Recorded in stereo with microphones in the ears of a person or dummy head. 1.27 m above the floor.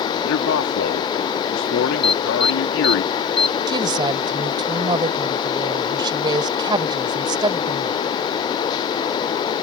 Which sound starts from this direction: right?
A woman speaking, at 3.7 s.